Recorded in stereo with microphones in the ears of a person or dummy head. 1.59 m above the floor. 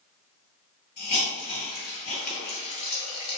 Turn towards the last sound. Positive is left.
turn(degrees=45)  # may be behind; listen again after turning